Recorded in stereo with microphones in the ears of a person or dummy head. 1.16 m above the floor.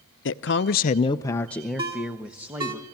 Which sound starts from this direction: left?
A man speaking, at 0.2 s.